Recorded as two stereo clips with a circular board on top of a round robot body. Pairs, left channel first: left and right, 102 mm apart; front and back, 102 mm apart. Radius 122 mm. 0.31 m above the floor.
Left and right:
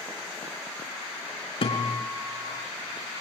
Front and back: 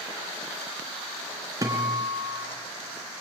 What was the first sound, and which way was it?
A guitar, 120° left.